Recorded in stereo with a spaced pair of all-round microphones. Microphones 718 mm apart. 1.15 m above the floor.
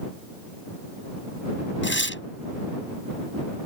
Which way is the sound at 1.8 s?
15° left (ahead or behind).